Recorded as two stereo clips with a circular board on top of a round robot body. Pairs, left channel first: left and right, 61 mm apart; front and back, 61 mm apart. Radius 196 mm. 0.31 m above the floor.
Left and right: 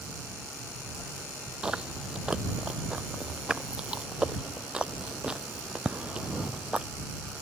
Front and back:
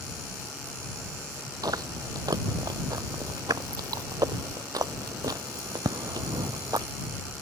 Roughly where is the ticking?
I don't hear ticking.